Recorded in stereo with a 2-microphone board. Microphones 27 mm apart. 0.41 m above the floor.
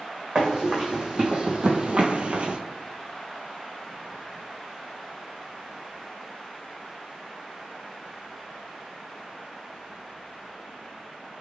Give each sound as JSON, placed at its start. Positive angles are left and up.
{"t": 0.3, "sound": "running footsteps", "side_deg": -30, "distance_m": 1.3}